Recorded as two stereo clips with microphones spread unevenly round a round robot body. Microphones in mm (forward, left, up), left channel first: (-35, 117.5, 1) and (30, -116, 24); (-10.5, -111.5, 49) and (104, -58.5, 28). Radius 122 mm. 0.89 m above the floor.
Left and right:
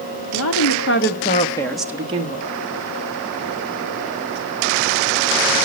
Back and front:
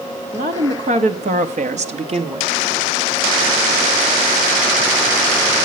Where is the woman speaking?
80° left, 2.5 m; by 2.5 s 20° right, 1.7 m.